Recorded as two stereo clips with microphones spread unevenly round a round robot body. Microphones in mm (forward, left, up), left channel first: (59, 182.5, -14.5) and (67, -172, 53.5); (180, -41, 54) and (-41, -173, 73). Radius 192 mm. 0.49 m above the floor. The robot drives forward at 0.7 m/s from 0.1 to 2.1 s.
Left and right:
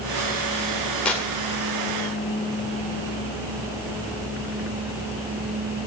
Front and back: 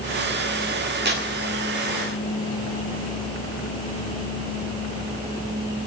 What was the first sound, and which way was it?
Tearing paper, 165° left.